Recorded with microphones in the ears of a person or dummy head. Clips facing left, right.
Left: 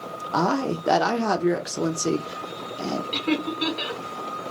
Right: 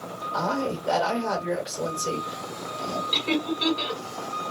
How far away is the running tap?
I don't hear a running tap.